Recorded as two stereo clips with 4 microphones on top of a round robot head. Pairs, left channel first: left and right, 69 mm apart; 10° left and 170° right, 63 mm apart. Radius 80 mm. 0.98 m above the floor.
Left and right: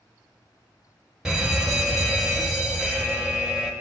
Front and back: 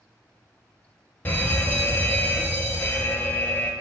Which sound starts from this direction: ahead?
A fire alarm, at 1.2 s.